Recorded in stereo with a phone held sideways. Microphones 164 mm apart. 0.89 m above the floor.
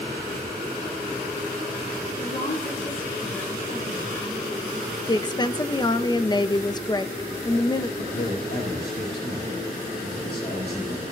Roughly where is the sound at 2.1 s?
Left.